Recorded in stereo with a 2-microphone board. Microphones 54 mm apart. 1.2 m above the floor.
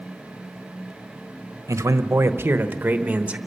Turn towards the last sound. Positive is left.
turn(degrees=-25)  # may be behind; listen again after turning